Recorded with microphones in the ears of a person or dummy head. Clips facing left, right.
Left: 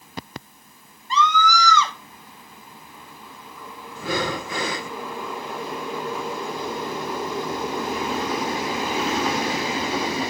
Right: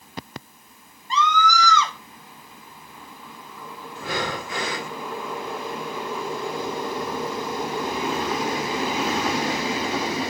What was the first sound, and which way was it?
A scream, 90° left.